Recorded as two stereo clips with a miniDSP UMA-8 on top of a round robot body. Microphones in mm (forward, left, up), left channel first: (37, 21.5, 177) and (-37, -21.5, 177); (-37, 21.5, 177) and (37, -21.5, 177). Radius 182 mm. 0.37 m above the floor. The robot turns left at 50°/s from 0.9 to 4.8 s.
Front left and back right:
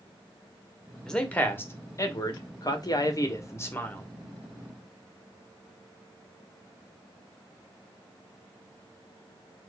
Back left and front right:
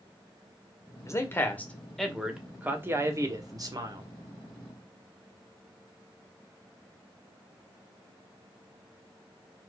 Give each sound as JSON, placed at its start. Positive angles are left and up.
{"t": 1.1, "sound": "a man speaking", "azimuth_deg": 110, "distance_m": 1.3}